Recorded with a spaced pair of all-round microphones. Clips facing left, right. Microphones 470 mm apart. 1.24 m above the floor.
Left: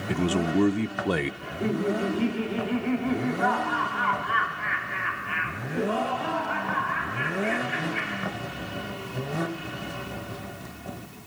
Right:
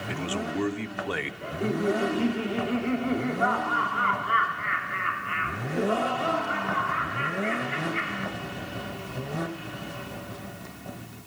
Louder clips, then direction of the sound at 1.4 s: Right 5 dB; 5° left (ahead or behind).